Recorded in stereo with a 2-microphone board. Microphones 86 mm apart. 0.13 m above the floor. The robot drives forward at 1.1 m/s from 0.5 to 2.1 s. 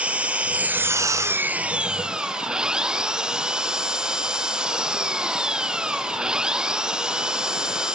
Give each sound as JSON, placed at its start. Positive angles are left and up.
{"t": 0.0, "sound": "an engine running", "side_deg": -15, "distance_m": 0.7}